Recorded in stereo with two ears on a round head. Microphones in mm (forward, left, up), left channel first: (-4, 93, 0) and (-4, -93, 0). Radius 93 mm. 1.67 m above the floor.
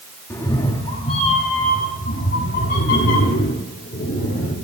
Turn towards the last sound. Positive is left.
turn(degrees=60)  # may be behind; listen again after turning